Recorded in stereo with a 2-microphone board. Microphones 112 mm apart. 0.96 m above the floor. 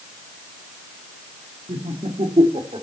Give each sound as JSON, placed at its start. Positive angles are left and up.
{"t": 1.7, "sound": "laughter", "side_deg": -70, "distance_m": 3.0}